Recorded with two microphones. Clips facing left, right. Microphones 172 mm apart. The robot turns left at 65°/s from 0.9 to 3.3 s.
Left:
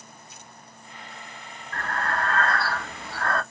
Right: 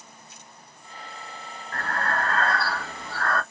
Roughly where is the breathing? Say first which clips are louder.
Even; right.